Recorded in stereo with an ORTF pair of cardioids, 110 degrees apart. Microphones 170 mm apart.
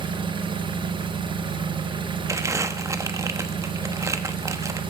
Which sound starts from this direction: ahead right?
An engine running, at 0.0 s.